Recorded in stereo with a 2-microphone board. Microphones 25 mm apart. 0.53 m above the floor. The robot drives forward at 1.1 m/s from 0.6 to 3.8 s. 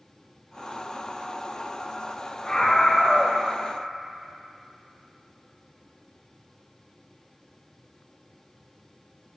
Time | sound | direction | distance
2.5 | a scream | 25° left (ahead or behind) | 2.5 m